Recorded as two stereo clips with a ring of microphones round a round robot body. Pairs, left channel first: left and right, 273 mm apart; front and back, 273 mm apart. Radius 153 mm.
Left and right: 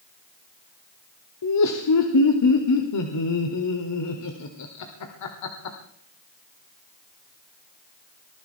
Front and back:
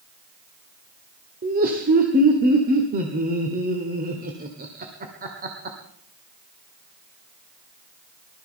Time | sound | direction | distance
1.4 | laughter | 120° left | 1.7 m